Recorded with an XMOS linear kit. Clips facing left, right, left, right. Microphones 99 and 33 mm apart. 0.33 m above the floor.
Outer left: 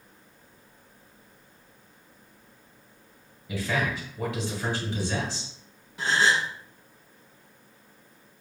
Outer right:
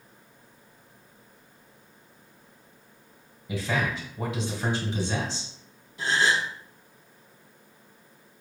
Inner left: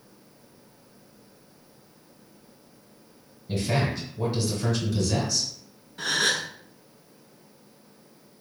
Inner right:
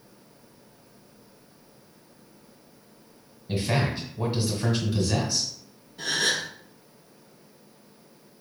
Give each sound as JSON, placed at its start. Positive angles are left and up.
{"t": 3.5, "sound": "a man speaking", "side_deg": -20, "distance_m": 1.5}
{"t": 6.0, "sound": "a gasp", "side_deg": 80, "distance_m": 1.0}